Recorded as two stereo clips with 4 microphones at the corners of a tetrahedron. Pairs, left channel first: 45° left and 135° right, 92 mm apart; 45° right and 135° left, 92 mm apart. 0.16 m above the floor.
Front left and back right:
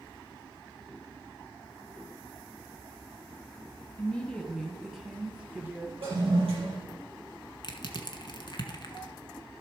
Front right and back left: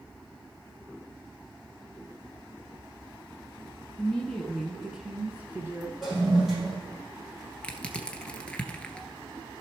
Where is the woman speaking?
5° right, 1.2 m; by 5.9 s 175° left, 1.4 m.